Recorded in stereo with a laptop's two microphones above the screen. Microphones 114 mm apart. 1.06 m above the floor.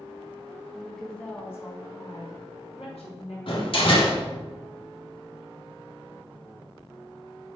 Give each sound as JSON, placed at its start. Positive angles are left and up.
{"t": 0.7, "sound": "a woman speaking", "side_deg": 0, "distance_m": 1.9}
{"t": 3.5, "sound": "a door slam", "side_deg": 55, "distance_m": 1.8}